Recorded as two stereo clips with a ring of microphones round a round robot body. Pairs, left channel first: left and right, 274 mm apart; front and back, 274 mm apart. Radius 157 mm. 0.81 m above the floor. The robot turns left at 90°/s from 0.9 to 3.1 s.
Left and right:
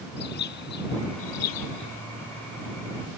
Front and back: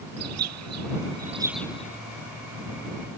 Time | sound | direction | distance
0.2 | a bird | 150° left | ?